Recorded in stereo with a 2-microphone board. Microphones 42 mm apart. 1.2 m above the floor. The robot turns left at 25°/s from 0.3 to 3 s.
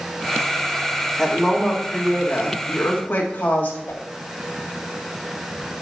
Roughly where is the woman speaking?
Behind.